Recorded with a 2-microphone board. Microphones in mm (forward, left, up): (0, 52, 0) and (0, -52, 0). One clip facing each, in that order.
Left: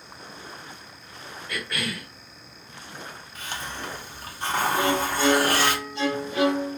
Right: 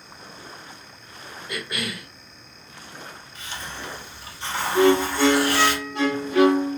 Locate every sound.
1.5 s a cough: 20° right (ahead or behind), 1.2 m
3.4 s a hiss: 45° left (ahead or behind), 0.8 m
4.8 s a violin: 65° right (ahead or behind), 1.7 m